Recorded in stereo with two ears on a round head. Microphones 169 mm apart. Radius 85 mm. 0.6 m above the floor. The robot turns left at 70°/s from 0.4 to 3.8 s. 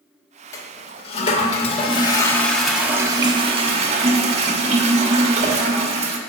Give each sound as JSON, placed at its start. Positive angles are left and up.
{"t": 0.5, "sound": "a toilet flushing", "azimuth_deg": 150, "distance_m": 1.1}